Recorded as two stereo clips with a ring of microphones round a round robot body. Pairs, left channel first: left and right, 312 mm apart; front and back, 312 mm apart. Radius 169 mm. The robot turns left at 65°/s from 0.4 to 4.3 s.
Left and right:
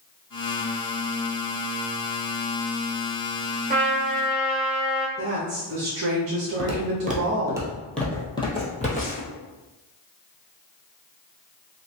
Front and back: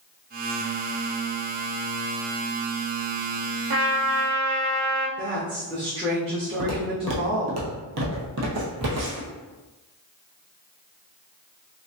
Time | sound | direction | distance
3.7 | a trumpet | 155° right | 1.0 m
5.2 | a woman speaking | 110° right | 0.8 m
6.6 | footsteps | 125° right | 1.1 m